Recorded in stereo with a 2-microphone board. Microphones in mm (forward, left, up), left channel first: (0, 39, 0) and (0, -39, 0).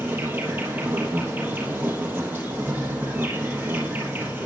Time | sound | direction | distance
0.0 | an insect | 25° right (ahead or behind) | 3 m